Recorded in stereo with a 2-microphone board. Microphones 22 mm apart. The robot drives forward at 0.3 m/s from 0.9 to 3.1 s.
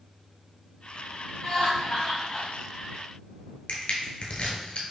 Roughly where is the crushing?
Left.